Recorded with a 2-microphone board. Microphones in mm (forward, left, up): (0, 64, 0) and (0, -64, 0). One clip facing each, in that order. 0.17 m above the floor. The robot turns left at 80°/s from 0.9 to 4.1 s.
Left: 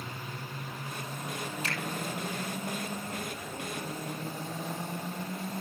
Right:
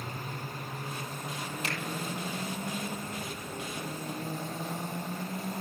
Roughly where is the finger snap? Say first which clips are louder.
Right 2 dB; right.